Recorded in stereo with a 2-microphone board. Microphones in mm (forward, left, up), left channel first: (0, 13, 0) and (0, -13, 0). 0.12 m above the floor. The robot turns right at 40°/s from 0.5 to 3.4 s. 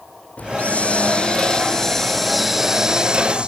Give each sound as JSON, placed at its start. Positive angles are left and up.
{"t": 0.4, "sound": "a hiss", "azimuth_deg": 105}